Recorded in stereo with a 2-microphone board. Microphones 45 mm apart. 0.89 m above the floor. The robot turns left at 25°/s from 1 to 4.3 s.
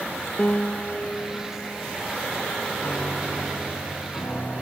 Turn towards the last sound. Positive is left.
turn(degrees=115)